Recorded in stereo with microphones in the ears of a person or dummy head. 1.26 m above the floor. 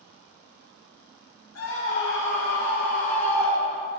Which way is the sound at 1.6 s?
70° left (ahead or behind).